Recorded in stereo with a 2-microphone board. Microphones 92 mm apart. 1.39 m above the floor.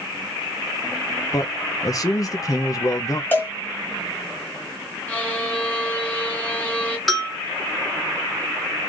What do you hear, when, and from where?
1.3 s a man speaking: 40° left (ahead or behind), 0.5 m
3.3 s a cowbell: 20° left (ahead or behind), 2 m
5.1 s a violin: 20° left (ahead or behind), 1.4 m
7.1 s a bell: centre (ahead or behind), 1.5 m